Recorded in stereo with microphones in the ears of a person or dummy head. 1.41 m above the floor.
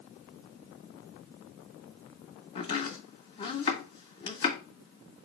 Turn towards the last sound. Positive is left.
turn(degrees=30)  # may be behind; listen again after turning